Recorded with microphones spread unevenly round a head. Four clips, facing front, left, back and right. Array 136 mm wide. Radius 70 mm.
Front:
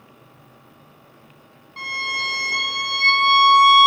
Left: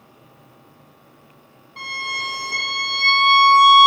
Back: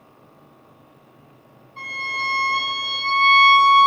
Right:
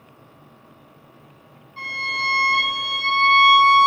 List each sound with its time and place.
1.8 s a violin: 40° left, 3 m